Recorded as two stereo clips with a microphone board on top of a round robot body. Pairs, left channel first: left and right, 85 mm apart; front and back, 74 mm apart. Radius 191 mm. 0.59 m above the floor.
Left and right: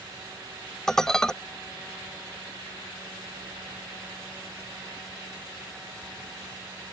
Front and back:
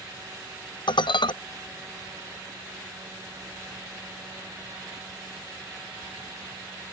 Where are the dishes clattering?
5° left.